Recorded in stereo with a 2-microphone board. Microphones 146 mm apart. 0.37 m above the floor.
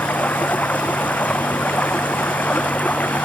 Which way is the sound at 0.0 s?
10° left (ahead or behind).